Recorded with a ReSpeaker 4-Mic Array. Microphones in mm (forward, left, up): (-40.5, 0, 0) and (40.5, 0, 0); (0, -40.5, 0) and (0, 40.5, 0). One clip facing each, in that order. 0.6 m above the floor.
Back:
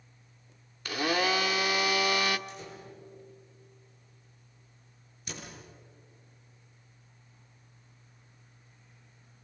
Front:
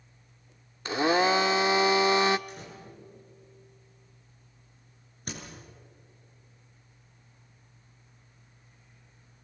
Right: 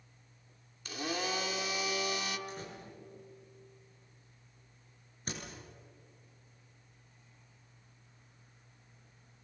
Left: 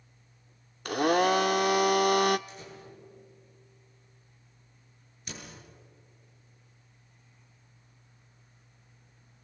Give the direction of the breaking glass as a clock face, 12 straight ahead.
I don't hear breaking glass.